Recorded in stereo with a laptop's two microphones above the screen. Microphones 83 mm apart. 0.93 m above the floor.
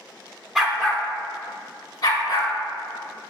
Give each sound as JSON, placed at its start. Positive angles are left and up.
{"t": 0.6, "sound": "a dog barking", "side_deg": -5, "distance_m": 0.6}